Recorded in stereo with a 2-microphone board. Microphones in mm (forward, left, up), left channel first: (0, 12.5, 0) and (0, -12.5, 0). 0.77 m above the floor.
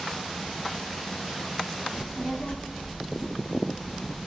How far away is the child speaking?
About 1.0 m.